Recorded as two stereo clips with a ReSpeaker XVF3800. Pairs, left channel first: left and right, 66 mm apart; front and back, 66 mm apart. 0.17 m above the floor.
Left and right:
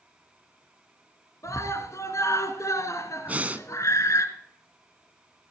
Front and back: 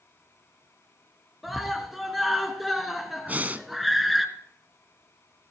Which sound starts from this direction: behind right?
Breathing, at 3.3 s.